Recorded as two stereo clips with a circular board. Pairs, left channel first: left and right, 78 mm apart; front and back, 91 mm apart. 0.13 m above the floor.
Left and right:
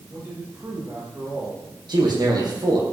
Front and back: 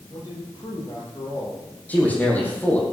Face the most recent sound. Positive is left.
turn(degrees=-70)